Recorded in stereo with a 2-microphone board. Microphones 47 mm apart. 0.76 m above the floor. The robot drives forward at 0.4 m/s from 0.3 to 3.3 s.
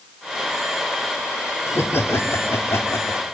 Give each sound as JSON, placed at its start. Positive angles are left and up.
{"t": 1.7, "sound": "laughter", "side_deg": 60, "distance_m": 2.5}